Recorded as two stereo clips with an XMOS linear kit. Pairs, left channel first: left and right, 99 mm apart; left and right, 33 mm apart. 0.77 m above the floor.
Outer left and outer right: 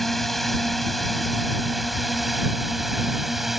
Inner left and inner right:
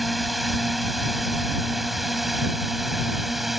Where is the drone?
Centre (ahead or behind).